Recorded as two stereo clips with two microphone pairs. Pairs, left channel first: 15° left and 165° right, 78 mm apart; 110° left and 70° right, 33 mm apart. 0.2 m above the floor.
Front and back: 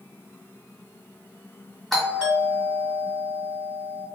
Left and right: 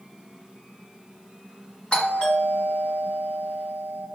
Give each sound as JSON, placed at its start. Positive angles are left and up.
{"t": 1.9, "sound": "a doorbell", "azimuth_deg": 95, "distance_m": 1.7}